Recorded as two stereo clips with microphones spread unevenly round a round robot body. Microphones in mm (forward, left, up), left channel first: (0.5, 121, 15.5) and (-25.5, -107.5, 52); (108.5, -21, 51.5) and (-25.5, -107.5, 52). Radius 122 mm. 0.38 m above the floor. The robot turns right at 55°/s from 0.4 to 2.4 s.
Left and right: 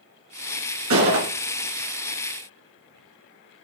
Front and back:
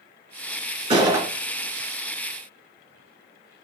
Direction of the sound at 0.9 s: 95° right.